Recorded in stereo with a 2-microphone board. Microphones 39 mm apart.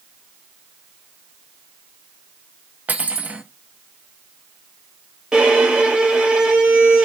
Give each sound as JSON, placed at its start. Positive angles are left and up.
{"t": 2.9, "sound": "cutlery clinking", "side_deg": -45, "distance_m": 1.1}
{"t": 5.3, "sound": "a violin", "side_deg": -25, "distance_m": 3.5}